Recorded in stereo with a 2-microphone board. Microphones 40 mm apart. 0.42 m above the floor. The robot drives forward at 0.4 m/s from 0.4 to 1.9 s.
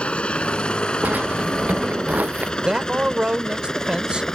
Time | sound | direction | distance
0.0 | a helicopter | 25° left (ahead or behind) | ?
1.0 | a drawer | 45° right (ahead or behind) | ?
2.6 | a man speaking | 25° right (ahead or behind) | ?